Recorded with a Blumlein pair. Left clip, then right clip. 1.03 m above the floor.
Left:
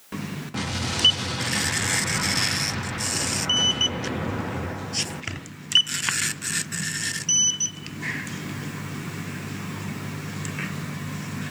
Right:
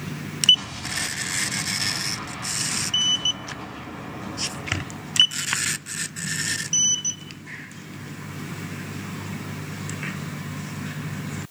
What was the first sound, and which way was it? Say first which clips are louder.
An explosion: left 1 dB; 35° left.